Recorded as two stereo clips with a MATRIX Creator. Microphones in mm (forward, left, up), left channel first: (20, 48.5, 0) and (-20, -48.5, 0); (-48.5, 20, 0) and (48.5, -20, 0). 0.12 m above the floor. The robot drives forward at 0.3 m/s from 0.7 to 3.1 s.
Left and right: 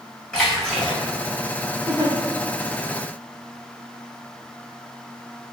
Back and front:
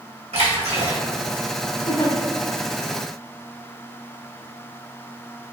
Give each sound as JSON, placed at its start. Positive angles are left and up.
{"t": 0.3, "sound": "a splash", "azimuth_deg": -15, "distance_m": 1.4}
{"t": 1.9, "sound": "a giggle", "azimuth_deg": 180, "distance_m": 1.4}